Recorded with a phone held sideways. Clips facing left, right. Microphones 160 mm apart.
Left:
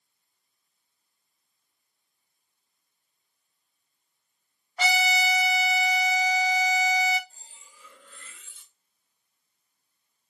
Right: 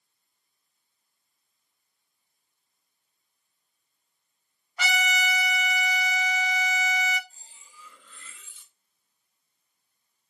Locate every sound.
4.8 s a trumpet: 35° left (ahead or behind), 0.8 m
7.3 s cutlery clinking: 60° left (ahead or behind), 2.5 m